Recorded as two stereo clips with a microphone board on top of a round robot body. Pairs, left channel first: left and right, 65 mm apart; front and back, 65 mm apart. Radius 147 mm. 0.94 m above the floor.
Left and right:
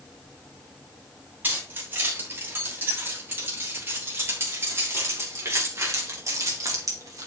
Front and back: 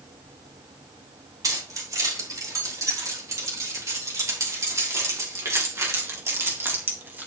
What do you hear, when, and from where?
1.4 s keys jangling: 150° right, 5 m; by 7.3 s 120° right, 2.0 m